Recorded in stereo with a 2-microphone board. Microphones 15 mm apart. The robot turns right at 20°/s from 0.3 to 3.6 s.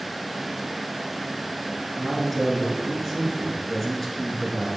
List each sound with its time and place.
2.0 s a man speaking: 25° left, 1.4 m; by 4.7 s 55° left, 1.4 m